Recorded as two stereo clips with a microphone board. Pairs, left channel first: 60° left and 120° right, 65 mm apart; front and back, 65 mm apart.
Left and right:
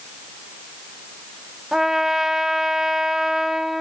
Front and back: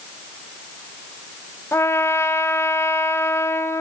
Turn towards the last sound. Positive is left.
turn(degrees=-35)